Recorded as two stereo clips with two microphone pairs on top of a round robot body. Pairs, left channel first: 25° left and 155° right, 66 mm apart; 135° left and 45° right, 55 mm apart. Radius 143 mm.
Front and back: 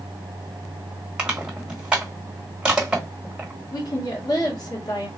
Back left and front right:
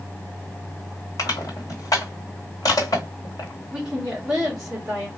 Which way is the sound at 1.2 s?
125° left.